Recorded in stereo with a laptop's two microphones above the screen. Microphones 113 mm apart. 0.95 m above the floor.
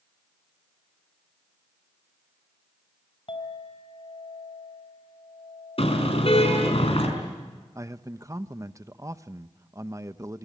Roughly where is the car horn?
Left.